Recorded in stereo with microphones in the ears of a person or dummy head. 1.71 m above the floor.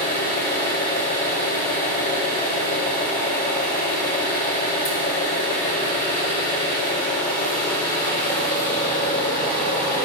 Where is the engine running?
45° left (ahead or behind), 2 m.